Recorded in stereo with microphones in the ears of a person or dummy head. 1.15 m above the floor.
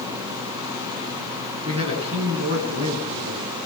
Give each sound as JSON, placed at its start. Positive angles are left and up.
{"t": 1.6, "sound": "a man speaking", "side_deg": -30, "distance_m": 9.5}